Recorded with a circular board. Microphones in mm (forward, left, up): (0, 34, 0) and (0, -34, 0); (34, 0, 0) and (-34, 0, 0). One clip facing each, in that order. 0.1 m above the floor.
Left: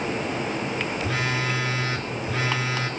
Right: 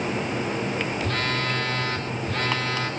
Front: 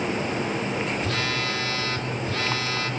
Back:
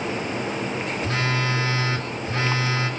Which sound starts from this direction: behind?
A phone buzzing, at 1.0 s.